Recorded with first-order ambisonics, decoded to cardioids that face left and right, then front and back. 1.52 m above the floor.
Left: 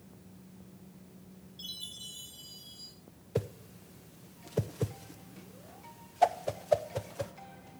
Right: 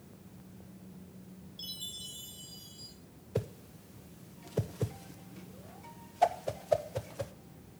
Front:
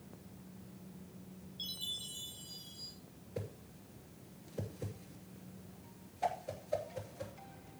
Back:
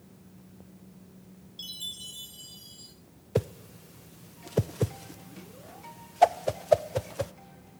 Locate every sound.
1.6 s a chime: 170° right, 5 m
3.4 s a whoosh: 175° left, 0.6 m